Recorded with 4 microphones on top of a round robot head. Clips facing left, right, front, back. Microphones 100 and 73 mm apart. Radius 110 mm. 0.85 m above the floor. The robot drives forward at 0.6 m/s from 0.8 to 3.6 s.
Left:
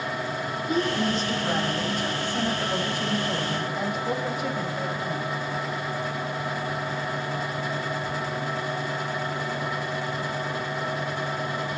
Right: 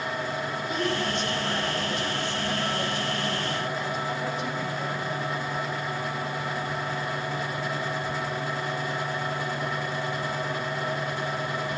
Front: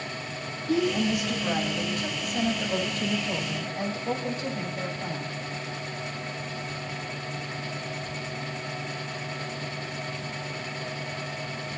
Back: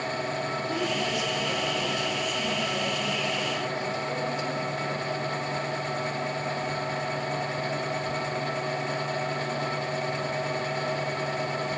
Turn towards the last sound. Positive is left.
turn(degrees=50)